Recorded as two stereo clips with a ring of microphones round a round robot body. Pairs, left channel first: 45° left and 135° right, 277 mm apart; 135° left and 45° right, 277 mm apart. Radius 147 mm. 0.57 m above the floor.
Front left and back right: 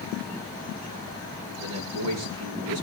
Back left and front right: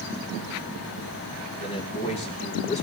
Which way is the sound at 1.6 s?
155° right.